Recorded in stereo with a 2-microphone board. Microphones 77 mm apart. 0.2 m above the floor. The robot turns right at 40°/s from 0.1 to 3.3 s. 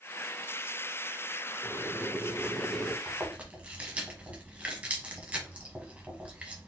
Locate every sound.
1.6 s boiling: 145° left, 0.7 m; by 3.0 s 160° right, 0.7 m
3.1 s chewing: 25° right (ahead or behind), 1.3 m; by 6.7 s 20° right (ahead or behind), 1.3 m